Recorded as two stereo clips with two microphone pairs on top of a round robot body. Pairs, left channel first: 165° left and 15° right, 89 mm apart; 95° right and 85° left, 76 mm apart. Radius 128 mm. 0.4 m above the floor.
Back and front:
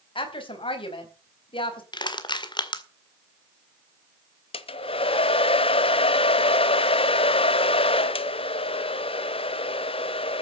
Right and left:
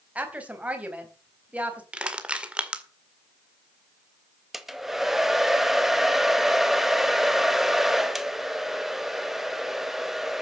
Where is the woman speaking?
160° left, 4 m.